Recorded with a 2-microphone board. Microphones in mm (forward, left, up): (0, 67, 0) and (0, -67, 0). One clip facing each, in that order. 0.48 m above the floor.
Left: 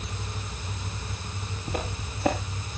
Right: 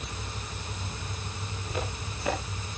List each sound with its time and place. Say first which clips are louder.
1.7 s footsteps: left 2 dB; 65° left (ahead or behind), 8.5 m